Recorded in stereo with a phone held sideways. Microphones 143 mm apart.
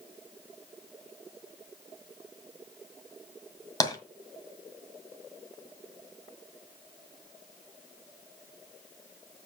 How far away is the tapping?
About 1.9 m.